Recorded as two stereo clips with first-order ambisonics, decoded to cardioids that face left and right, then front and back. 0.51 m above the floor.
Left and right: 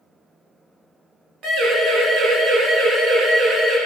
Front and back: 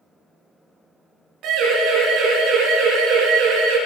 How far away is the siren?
About 7 m.